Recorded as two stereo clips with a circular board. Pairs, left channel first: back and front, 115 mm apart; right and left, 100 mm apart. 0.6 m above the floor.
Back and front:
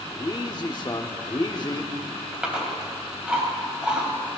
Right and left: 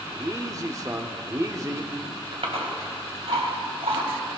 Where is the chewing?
80° left, 3 m.